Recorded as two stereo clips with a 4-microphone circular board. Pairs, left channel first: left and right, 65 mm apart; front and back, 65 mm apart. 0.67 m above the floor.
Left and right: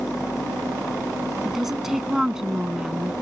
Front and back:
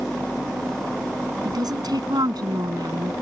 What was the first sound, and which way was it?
A woman speaking, 175° right.